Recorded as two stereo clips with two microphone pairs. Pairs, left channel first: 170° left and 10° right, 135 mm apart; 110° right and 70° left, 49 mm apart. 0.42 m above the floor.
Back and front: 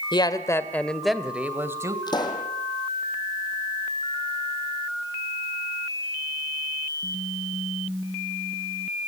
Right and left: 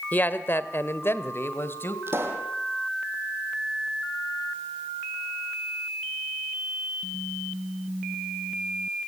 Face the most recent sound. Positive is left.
turn(degrees=110)